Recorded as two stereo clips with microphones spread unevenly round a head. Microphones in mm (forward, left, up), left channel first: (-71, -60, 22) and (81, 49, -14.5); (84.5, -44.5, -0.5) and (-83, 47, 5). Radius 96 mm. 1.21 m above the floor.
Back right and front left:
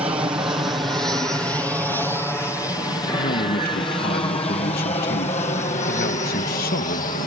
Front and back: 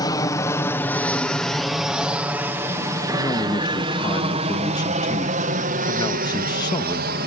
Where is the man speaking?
100° right.